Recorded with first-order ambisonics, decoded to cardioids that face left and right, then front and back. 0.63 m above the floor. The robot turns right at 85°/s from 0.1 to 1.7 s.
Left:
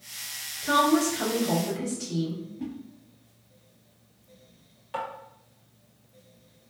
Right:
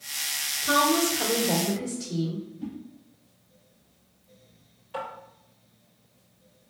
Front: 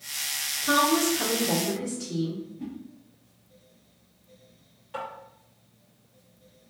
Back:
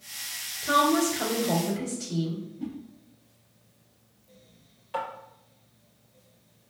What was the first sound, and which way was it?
A woman speaking, 15° right.